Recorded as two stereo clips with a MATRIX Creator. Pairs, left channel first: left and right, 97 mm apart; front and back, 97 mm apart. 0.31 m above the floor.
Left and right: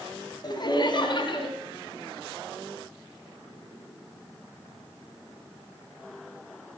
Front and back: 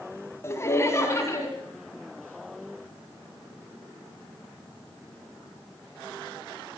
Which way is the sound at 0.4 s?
55° left.